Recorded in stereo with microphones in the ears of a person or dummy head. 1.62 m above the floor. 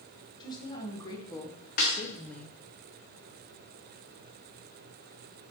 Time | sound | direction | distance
0.4 | a woman speaking | 25° left (ahead or behind) | 2 m
1.8 | a snare drum | 50° left (ahead or behind) | 2.5 m